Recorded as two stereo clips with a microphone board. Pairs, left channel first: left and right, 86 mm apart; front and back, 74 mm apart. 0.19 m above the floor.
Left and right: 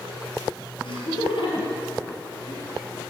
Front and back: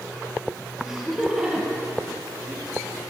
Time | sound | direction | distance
0.8 | laughter | 100° left | 4.5 m